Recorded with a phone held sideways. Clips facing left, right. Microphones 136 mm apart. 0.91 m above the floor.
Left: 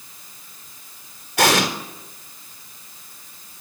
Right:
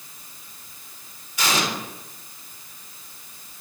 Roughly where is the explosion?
Left.